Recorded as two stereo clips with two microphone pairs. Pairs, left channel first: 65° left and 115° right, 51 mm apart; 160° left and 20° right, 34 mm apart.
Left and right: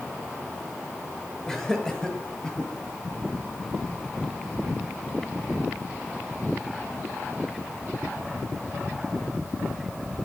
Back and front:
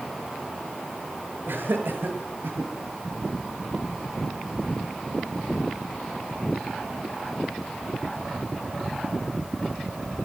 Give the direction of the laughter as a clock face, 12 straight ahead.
12 o'clock.